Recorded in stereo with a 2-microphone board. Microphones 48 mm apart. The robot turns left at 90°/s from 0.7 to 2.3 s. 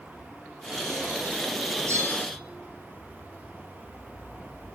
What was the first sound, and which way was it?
A bell, 90° right.